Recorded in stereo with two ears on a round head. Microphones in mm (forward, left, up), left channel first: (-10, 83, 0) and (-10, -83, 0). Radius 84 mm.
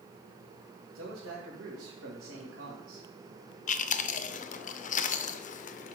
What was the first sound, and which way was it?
A man speaking, 90° right.